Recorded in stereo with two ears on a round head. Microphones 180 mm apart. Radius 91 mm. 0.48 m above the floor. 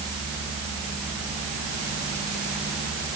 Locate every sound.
Only background noise.